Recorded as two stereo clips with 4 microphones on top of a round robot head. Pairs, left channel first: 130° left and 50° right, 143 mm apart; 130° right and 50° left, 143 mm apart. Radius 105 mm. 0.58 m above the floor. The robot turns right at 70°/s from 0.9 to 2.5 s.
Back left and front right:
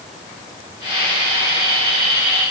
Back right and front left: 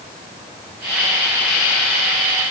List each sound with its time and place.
Only background noise.